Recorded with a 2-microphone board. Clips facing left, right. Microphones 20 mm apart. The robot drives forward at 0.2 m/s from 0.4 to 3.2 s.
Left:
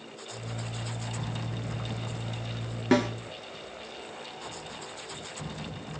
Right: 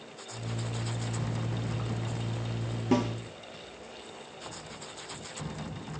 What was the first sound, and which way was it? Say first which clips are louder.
A snare drum: left 3 dB; 70° left (ahead or behind).